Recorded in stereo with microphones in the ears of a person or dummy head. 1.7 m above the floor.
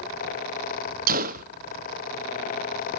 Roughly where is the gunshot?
Right.